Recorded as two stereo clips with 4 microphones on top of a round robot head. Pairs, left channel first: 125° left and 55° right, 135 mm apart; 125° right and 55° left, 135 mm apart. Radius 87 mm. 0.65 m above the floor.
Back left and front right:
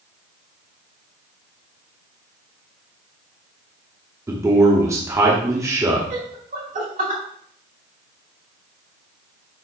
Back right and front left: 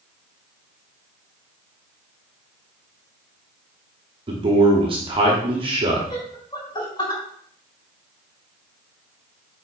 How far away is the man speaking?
About 1.5 m.